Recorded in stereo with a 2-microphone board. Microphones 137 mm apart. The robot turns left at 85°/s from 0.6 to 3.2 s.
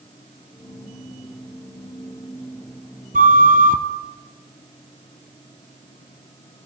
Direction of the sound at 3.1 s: 80° right.